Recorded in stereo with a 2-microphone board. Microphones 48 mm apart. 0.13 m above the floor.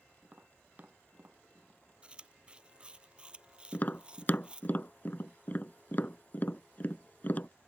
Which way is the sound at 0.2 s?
35° right (ahead or behind).